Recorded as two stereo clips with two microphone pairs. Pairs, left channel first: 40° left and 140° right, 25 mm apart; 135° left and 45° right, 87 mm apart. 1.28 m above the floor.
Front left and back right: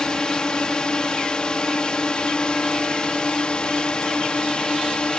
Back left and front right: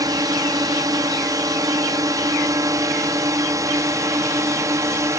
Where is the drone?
10° right; by 5.2 s straight ahead.